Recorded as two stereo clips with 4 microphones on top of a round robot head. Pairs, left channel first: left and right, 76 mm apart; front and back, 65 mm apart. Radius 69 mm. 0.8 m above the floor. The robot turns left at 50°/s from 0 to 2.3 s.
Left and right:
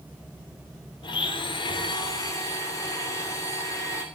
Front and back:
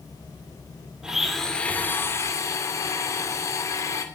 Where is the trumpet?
I don't hear a trumpet.